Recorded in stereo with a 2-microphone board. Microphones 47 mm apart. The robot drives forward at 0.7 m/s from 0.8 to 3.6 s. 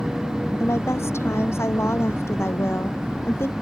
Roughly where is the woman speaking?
Left.